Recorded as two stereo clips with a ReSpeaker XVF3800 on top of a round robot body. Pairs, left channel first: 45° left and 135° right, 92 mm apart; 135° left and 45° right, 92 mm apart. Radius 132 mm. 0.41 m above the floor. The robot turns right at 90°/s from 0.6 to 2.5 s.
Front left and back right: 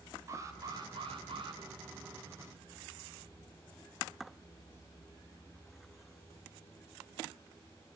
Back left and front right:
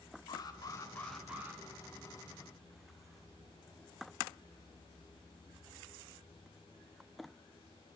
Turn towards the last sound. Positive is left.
turn(degrees=-15)